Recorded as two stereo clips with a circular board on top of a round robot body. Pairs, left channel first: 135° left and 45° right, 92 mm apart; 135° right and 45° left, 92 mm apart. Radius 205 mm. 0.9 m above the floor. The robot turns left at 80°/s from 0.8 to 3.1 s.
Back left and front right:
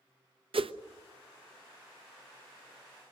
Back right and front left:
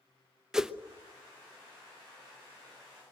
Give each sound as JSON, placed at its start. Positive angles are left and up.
{"t": 0.5, "sound": "a whoosh", "azimuth_deg": -40, "distance_m": 1.0}